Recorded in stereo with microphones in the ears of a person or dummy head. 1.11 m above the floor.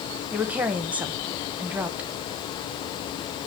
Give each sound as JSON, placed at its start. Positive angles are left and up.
{"t": 0.3, "sound": "a woman speaking", "side_deg": -10, "distance_m": 0.8}